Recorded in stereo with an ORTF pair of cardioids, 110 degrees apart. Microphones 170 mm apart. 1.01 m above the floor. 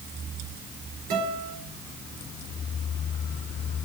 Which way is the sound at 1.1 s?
70° right.